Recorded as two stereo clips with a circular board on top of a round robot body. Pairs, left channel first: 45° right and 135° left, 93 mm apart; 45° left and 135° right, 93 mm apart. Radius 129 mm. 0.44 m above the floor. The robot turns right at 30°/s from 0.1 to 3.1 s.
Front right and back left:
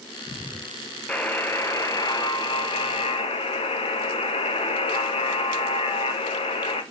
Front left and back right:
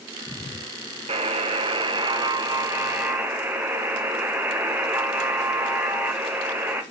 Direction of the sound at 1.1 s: 125° right.